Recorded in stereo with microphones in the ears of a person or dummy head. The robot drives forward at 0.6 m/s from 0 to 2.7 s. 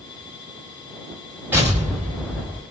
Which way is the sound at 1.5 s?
10° right (ahead or behind).